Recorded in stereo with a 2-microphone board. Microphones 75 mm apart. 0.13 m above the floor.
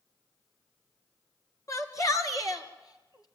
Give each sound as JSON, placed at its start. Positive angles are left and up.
{"t": 1.7, "sound": "a shout", "side_deg": 45, "distance_m": 2.0}